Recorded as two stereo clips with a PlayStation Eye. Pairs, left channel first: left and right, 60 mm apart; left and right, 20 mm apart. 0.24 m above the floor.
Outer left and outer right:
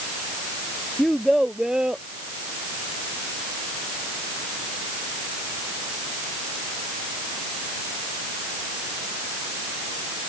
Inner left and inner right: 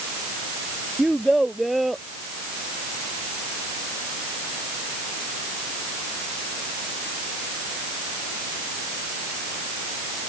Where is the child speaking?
Centre (ahead or behind); by 2.0 s 15° right (ahead or behind).